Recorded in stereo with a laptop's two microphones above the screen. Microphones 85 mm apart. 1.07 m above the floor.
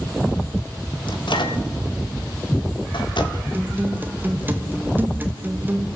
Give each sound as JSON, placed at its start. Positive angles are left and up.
{"t": 1.1, "sound": "a microwave", "side_deg": 80, "distance_m": 2.5}
{"t": 3.5, "sound": "a guitar", "side_deg": -25, "distance_m": 1.4}